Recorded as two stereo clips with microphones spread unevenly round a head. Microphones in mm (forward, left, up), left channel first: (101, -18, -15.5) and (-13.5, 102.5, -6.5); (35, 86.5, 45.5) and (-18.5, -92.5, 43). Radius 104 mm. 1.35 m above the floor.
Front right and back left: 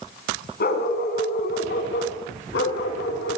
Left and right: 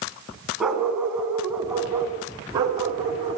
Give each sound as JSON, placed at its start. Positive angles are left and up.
{"t": 0.6, "sound": "a dog barking", "azimuth_deg": -20, "distance_m": 5.0}